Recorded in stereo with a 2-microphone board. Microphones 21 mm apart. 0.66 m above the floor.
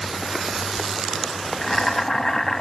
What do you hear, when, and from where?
1.6 s boiling: 25° left (ahead or behind), 0.6 m